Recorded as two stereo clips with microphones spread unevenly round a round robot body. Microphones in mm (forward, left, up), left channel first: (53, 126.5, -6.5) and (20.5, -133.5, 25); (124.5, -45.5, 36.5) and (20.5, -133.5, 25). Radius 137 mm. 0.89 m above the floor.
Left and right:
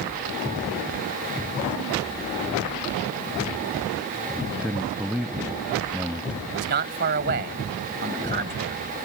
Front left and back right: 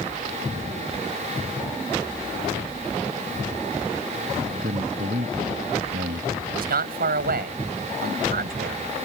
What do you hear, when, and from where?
4.4 s a man speaking: straight behind
6.5 s a man speaking: 155° right